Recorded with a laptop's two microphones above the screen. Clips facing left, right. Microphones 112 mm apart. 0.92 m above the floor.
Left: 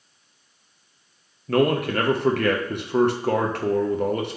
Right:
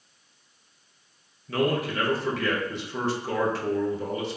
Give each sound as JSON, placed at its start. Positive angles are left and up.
{"t": 1.5, "sound": "a man speaking", "side_deg": 60, "distance_m": 0.8}